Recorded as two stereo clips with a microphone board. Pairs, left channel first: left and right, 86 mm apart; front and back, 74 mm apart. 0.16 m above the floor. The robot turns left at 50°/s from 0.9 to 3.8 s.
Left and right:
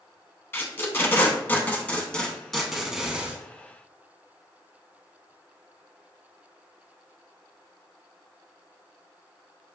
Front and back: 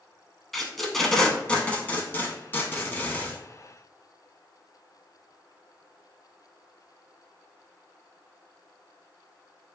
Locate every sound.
0.5 s tape being pulled: 85° left, 0.5 m; by 3.4 s 40° right, 0.5 m